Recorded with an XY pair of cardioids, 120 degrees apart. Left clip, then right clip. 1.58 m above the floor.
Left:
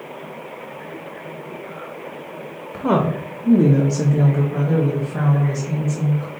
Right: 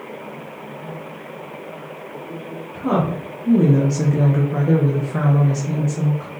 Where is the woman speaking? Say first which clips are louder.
Left 2 dB; 45° left, 0.9 m; by 6.3 s 50° right, 1.7 m.